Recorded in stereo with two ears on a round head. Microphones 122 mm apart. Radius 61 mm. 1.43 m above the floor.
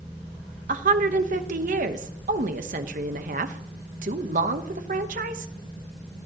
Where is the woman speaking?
60° right (ahead or behind), 1.1 m.